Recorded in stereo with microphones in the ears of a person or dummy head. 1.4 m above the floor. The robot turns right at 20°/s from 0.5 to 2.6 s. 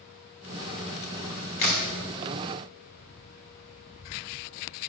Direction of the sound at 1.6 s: 35° left (ahead or behind).